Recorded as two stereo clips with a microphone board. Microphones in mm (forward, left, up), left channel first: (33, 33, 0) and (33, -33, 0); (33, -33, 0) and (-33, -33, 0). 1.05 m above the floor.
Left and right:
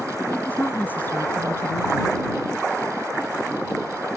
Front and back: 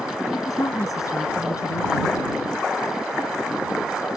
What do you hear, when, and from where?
0.3 s a woman speaking: 25° left; by 2.3 s 40° left